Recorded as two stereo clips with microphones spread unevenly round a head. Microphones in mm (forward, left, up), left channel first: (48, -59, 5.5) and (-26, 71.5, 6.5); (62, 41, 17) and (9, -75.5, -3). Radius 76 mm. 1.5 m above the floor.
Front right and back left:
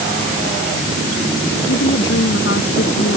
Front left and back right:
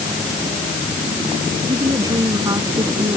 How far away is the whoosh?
I don't hear a whoosh.